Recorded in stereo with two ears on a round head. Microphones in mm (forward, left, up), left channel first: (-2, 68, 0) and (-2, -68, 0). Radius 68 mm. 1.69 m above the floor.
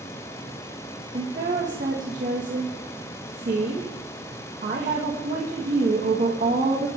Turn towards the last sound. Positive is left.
turn(degrees=-55)  # may be behind; listen again after turning